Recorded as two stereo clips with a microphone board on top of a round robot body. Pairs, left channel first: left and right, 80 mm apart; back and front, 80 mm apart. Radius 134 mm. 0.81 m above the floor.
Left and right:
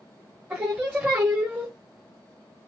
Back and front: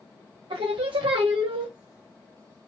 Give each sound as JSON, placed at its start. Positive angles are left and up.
{"t": 0.5, "sound": "singing", "azimuth_deg": -20, "distance_m": 0.6}